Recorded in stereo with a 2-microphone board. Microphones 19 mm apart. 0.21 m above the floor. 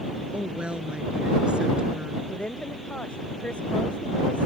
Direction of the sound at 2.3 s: 85° left.